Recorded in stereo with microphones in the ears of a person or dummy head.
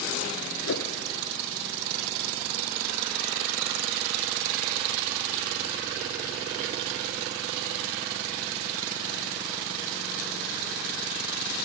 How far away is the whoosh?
About 0.6 m.